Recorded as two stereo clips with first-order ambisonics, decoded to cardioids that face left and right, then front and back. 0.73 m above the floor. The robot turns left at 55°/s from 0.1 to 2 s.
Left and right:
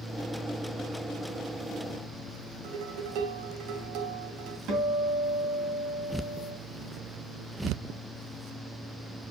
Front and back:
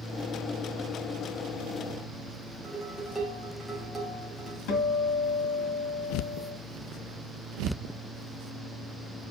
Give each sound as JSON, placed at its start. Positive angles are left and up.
{"t": 2.6, "sound": "dishes clattering", "azimuth_deg": -105, "distance_m": 2.5}
{"t": 4.7, "sound": "a guitar", "azimuth_deg": -40, "distance_m": 3.0}